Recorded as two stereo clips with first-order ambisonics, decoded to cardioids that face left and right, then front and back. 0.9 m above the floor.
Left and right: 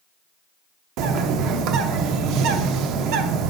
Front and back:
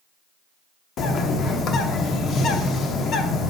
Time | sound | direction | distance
1.0 | a bird | 55° right | 0.7 m